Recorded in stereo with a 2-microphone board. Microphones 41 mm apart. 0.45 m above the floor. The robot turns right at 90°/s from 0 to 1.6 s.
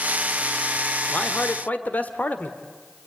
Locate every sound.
1.1 s a man speaking: 55° left, 1.6 m; by 2.5 s 100° left, 1.6 m